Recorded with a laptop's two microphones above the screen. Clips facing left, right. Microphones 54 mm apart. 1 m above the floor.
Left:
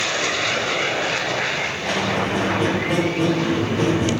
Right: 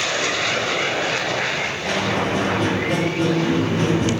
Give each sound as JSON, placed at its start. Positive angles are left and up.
{"t": 1.8, "sound": "a squeak", "side_deg": 10, "distance_m": 0.6}